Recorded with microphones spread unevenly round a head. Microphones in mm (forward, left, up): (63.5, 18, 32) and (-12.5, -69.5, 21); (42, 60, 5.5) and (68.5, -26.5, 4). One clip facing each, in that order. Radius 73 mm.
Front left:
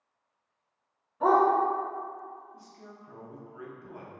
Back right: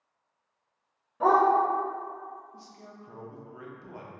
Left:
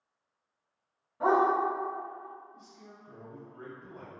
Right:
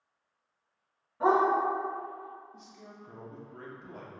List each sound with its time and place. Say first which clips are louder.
1.2 s a dog barking: even, even; 170° right, 1.1 m
2.5 s a man speaking: back right 1 dB, right 2 dB; 70° right, 0.7 m